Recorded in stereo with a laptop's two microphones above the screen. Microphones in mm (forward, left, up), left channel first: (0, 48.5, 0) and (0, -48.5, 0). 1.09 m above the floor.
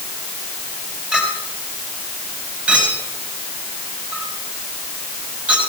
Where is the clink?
10° right (ahead or behind), 4.5 m.